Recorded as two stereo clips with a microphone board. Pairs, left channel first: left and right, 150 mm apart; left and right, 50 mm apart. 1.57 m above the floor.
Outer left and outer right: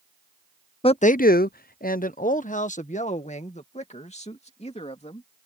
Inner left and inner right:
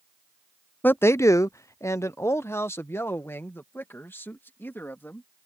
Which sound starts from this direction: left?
A man speaking, at 0.8 s.